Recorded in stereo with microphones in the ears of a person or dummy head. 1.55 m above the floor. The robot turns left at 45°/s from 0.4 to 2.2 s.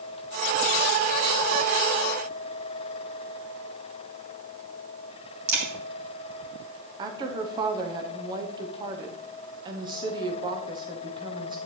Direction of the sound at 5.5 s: 35° right (ahead or behind).